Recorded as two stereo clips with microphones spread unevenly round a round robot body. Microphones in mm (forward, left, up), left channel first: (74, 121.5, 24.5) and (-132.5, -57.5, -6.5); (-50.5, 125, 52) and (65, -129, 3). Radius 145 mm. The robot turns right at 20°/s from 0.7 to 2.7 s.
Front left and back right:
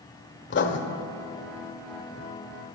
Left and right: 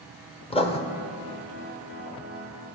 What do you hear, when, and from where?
0.5 s writing: 45° left, 1.0 m